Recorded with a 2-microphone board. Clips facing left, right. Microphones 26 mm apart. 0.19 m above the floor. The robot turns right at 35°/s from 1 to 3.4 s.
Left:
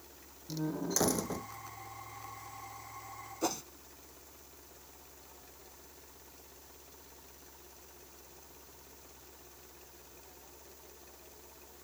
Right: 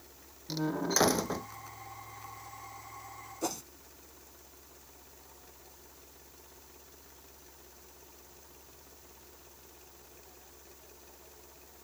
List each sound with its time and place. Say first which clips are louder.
0.5 s a door slam: right 4 dB; 45° right (ahead or behind); by 1.5 s 25° right (ahead or behind)
3.4 s a whoosh: left 1 dB; 10° left (ahead or behind)